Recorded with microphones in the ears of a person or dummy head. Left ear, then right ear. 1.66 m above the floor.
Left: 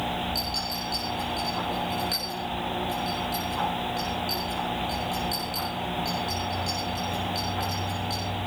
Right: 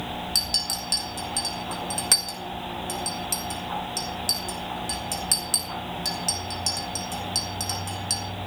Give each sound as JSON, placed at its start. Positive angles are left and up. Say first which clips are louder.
{"t": 0.3, "sound": "a clink", "louder": "right 4 dB", "side_deg": -35, "distance_m": 1.2}